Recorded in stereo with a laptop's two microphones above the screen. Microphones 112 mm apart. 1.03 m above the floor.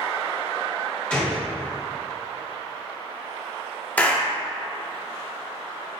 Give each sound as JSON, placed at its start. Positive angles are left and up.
{"t": 1.1, "sound": "a gunshot", "side_deg": 15, "distance_m": 1.7}
{"t": 4.0, "sound": "a clap", "side_deg": 15, "distance_m": 1.5}